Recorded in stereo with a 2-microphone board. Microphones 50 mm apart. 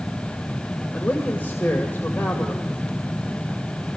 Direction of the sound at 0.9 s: 35° left (ahead or behind).